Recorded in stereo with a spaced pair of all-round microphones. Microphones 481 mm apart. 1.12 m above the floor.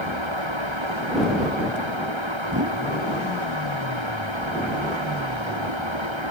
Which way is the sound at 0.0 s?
70° right (ahead or behind).